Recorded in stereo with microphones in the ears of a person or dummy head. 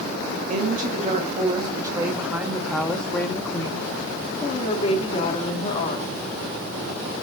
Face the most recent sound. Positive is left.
turn(degrees=40)  # may be behind; listen again after turning